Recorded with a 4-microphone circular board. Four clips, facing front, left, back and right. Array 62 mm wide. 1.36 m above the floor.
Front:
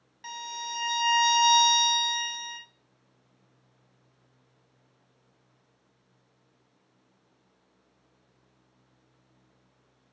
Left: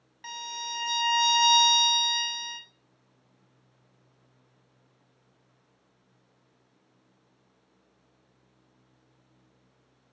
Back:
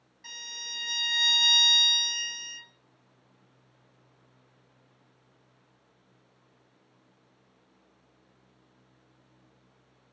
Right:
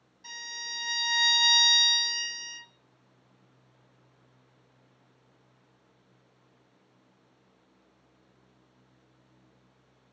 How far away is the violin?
About 1.0 m.